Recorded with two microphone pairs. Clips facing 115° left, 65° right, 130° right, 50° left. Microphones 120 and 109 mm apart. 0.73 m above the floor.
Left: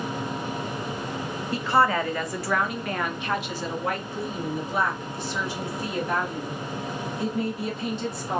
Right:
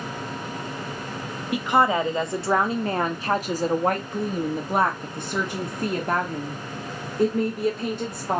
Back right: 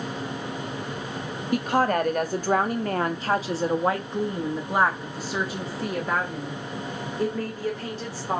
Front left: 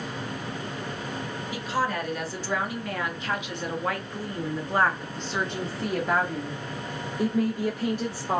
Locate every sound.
1.5 s a woman speaking: 135° right, 1.7 m; by 8.4 s 25° right, 3 m